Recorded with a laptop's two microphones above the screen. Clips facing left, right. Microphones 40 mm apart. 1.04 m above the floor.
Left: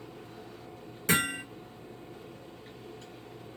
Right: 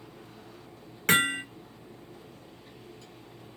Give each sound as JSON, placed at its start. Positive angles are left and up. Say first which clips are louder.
{"t": 0.0, "sound": "a fan", "louder": "left 2 dB", "side_deg": 45, "distance_m": 0.8}
{"t": 1.1, "sound": "hammering", "louder": "right 4 dB", "side_deg": -65, "distance_m": 0.9}